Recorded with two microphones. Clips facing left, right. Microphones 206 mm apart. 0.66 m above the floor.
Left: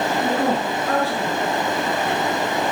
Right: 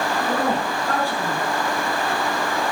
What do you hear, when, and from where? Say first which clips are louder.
0.2 s a woman speaking: left 2 dB; centre (ahead or behind), 7 m